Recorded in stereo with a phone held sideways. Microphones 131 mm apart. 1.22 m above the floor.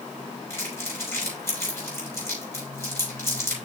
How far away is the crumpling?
About 5 m.